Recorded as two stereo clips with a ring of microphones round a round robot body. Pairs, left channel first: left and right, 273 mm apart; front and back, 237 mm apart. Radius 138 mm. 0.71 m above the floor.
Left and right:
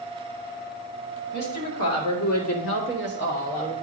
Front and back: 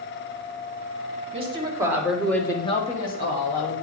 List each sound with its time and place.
1.3 s a woman speaking: 120° left, 2 m; by 3.8 s 25° left, 2.5 m